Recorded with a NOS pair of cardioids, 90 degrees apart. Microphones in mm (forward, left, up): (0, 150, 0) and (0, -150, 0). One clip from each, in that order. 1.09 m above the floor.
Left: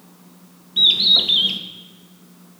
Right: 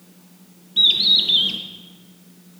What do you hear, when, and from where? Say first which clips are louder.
0.8 s a bird: left 1 dB; 5° left, 0.7 m